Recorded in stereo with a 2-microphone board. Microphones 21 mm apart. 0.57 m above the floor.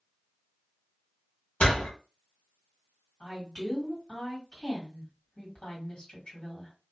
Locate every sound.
1.6 s a door slam: 65° left (ahead or behind), 1.0 m
3.2 s a woman speaking: 45° left (ahead or behind), 1.7 m